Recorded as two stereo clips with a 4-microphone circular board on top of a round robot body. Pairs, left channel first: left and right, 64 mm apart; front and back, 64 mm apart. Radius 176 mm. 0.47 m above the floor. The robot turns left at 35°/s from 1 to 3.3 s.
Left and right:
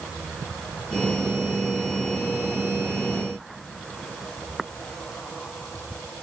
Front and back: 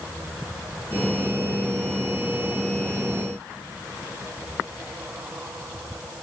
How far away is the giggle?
I don't hear a giggle.